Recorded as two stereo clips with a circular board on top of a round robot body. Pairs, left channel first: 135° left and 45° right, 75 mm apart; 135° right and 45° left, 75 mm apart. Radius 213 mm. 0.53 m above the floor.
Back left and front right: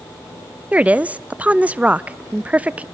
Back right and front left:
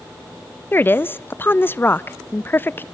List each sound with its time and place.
0.7 s a woman speaking: 100° right, 0.7 m